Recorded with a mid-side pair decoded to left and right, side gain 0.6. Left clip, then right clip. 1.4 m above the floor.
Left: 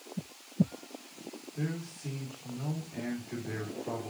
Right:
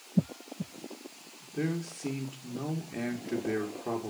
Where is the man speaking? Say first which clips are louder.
Right 7 dB; 45° right, 2.5 m.